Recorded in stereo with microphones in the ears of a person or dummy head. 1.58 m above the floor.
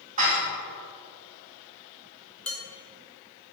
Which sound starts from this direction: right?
Dishes clattering, at 0.2 s.